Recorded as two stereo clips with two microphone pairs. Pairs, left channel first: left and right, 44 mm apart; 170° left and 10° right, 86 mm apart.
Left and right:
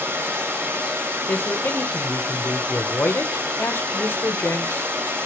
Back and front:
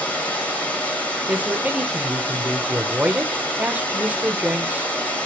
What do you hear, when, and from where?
0.0 s running water: 115° right, 2.5 m
1.3 s a man speaking: 60° left, 1.0 m